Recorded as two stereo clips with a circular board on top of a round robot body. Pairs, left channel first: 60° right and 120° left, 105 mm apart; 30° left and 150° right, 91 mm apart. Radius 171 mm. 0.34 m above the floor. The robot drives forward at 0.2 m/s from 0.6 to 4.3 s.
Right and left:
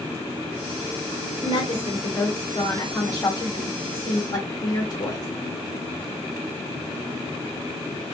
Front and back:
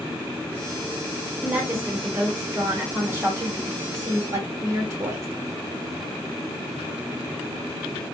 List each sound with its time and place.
1.4 s a woman speaking: 75° right, 2 m; by 5.3 s 95° right, 2 m